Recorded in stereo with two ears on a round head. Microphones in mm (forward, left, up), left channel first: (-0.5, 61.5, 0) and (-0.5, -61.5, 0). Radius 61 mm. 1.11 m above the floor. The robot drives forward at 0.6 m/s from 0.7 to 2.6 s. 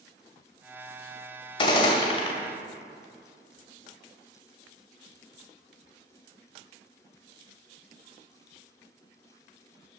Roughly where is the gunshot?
Left.